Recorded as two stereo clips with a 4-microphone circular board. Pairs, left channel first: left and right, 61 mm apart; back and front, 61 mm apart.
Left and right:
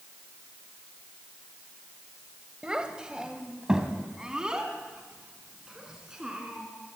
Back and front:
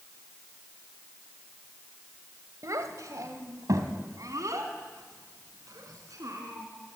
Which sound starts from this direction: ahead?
A child speaking, at 2.6 s.